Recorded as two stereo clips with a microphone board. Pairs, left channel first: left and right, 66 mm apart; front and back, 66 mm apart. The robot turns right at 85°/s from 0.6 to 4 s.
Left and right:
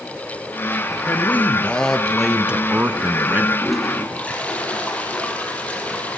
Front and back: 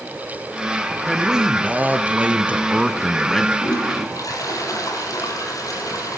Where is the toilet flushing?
10° right, 4.5 m; by 6.2 s 25° left, 4.5 m.